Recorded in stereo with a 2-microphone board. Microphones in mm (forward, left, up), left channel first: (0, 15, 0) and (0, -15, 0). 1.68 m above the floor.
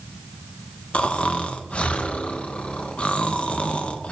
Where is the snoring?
45° left (ahead or behind), 0.6 m.